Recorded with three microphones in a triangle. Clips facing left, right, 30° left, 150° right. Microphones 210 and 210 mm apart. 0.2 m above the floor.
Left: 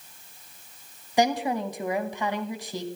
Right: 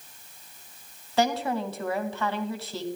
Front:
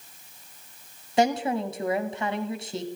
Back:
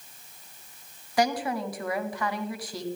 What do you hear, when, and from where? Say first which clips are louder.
1.2 s a woman speaking: left 1 dB, front 3 dB; 40° left, 1.0 m